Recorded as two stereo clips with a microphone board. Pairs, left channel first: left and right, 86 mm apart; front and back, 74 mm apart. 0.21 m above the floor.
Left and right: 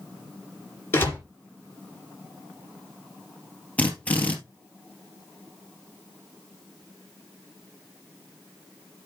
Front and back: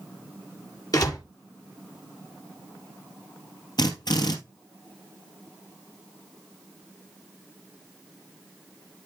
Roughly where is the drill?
Ahead.